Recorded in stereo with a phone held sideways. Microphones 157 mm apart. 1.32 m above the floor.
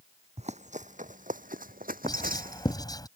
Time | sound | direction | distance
0.4 | running footsteps | 45° right (ahead or behind) | ?
2.0 | writing | 25° left (ahead or behind) | ?